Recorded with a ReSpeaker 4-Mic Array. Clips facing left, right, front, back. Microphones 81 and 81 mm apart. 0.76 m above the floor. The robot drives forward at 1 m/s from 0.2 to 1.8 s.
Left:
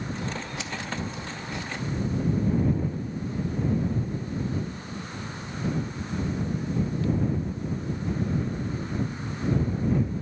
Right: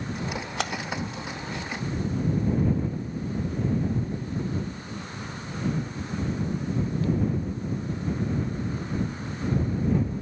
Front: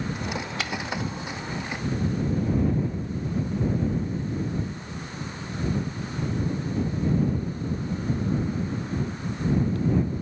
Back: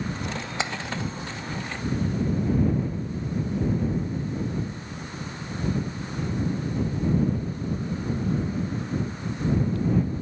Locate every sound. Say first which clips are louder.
0.6 s a splash: right 6 dB, back 4 dB; 115° right